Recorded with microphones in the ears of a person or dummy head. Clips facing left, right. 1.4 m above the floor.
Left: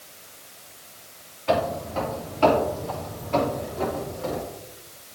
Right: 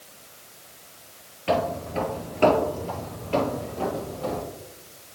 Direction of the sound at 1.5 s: 40° right (ahead or behind).